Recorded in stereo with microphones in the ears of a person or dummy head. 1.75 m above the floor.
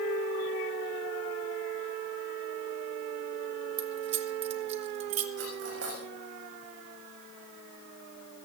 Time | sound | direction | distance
3.8 | keys jangling | 40° right (ahead or behind) | 1.4 m
5.4 | cutlery clinking | 60° right (ahead or behind) | 7 m